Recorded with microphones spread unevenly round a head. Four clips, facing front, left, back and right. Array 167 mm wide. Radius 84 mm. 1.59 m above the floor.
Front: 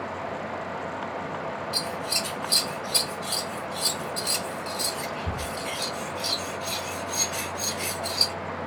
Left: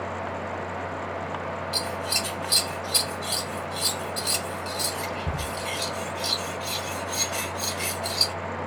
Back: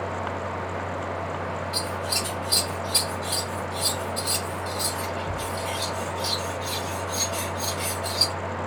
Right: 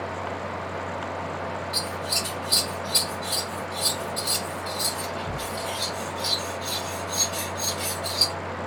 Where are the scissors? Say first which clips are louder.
Left 1 dB, back 2 dB; 75° left, 1.3 m.